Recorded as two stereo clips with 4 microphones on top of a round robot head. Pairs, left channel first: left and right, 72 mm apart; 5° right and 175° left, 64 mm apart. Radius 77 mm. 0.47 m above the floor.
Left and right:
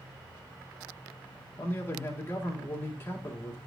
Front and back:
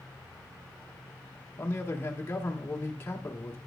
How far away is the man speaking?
About 1.5 m.